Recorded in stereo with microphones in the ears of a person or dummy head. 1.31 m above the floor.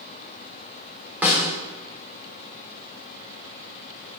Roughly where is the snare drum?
Centre.